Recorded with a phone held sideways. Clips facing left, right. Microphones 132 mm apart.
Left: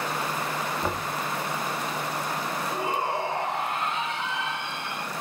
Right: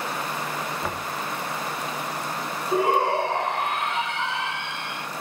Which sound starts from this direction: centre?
Knocking, at 0.8 s.